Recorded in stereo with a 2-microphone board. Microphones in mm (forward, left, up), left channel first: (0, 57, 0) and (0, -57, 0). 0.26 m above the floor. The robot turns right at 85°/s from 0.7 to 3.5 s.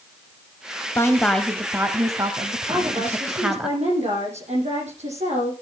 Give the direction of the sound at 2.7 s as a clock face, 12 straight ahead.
5 o'clock.